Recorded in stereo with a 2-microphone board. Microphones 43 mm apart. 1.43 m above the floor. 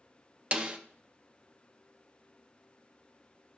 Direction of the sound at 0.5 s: 30° right (ahead or behind).